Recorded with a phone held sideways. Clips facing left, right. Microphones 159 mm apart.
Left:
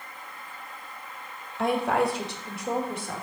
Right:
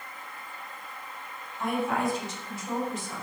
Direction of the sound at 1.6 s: 80° left.